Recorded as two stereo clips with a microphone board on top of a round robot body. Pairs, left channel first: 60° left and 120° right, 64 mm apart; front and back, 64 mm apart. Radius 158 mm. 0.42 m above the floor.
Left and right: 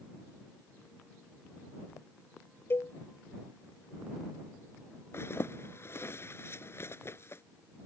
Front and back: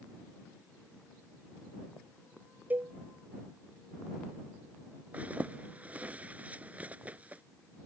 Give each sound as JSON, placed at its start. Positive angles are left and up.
{"t": 2.7, "sound": "a cowbell", "azimuth_deg": 115}
{"t": 5.1, "sound": "a zipper", "azimuth_deg": 110}